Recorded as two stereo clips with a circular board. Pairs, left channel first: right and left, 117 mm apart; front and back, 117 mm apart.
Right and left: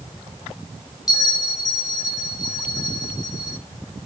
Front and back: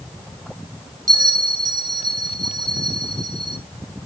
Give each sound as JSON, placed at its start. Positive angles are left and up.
{"t": 1.1, "sound": "a bell", "azimuth_deg": -135, "distance_m": 0.8}